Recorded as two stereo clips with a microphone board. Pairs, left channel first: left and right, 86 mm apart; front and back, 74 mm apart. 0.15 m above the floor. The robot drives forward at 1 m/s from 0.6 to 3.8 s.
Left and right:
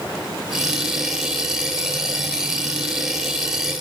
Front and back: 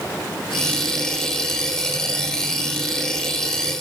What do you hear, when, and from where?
Only background noise.